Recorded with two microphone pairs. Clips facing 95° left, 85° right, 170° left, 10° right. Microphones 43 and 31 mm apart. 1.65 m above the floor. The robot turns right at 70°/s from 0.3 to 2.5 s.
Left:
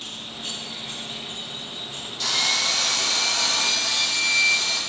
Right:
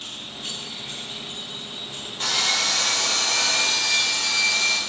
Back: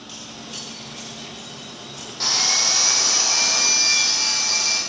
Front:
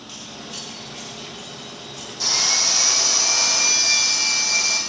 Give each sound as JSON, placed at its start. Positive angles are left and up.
{"t": 2.2, "sound": "sawing", "azimuth_deg": -140, "distance_m": 5.0}